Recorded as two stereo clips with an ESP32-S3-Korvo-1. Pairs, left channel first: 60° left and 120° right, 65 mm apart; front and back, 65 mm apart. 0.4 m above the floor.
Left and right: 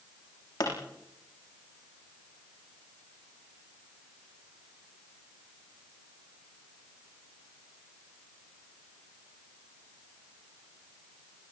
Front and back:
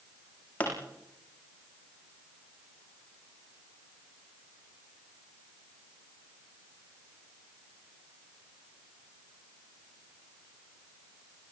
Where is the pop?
65° left, 8.5 m.